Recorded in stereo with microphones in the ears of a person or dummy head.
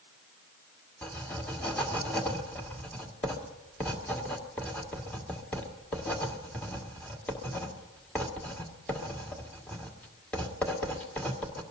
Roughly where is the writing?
Centre.